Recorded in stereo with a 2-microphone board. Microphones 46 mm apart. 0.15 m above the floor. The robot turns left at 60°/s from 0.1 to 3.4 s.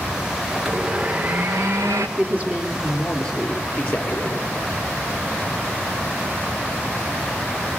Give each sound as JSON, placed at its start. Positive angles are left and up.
{"t": 0.6, "sound": "a blender", "azimuth_deg": 0, "distance_m": 2.0}
{"t": 2.2, "sound": "a man speaking", "azimuth_deg": -135, "distance_m": 3.5}